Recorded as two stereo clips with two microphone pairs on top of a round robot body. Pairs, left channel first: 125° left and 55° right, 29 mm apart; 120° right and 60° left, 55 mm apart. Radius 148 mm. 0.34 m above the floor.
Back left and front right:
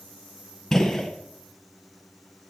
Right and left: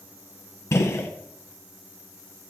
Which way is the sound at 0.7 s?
155° right.